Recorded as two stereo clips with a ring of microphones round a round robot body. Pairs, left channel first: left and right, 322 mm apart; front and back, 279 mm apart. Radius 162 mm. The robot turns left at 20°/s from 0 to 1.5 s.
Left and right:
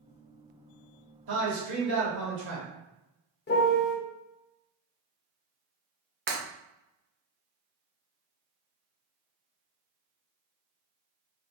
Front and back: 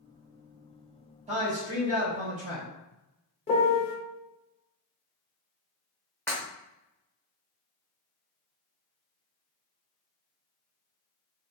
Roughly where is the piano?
Ahead left.